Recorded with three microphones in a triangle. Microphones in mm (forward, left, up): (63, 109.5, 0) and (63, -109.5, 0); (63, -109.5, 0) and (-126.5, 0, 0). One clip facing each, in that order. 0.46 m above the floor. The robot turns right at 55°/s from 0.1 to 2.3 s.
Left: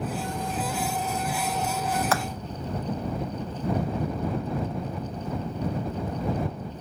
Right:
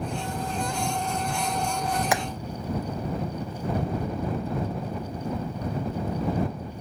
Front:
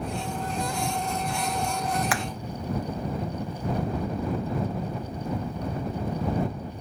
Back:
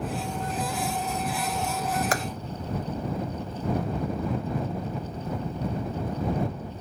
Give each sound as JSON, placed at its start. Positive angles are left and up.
{"t": 2.1, "sound": "hammering", "azimuth_deg": -165}